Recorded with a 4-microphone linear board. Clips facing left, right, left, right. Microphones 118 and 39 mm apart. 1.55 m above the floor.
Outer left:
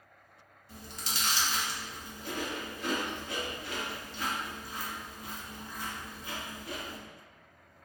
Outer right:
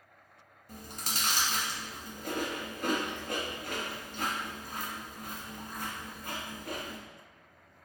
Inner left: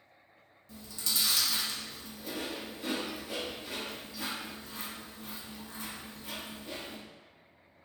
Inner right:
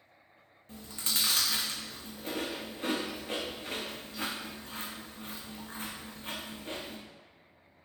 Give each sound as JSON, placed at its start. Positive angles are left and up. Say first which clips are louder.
{"t": 0.7, "sound": "chewing", "louder": "outer right 1 dB, inner right 1 dB", "side_deg": -45, "distance_m": 0.7}